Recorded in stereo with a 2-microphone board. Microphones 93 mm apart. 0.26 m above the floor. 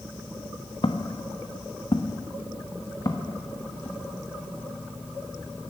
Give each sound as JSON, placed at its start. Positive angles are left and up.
{"t": 0.8, "sound": "footsteps", "side_deg": 60, "distance_m": 0.8}